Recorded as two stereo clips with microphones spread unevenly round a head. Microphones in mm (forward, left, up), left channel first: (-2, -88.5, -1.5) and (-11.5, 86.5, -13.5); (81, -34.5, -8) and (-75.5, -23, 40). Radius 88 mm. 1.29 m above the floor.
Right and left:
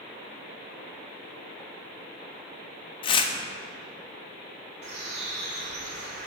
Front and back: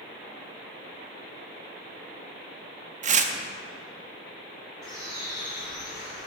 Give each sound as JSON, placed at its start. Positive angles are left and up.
{"t": 3.0, "sound": "tearing paper", "azimuth_deg": -140, "distance_m": 0.5}
{"t": 4.8, "sound": "a bird", "azimuth_deg": 115, "distance_m": 1.6}